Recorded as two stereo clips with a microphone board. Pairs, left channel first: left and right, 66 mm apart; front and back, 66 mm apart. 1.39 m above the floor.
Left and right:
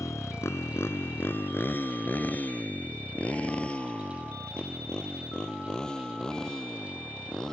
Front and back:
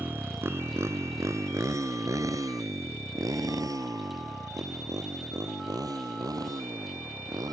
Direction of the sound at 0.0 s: 125° left.